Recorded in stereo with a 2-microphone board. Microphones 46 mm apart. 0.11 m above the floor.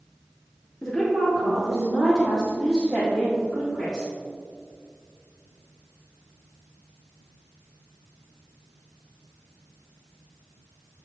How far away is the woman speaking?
About 1.9 m.